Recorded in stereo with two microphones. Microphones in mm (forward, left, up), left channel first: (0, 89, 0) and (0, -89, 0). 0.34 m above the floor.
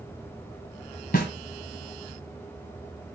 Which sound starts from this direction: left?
A snare drum, at 1.1 s.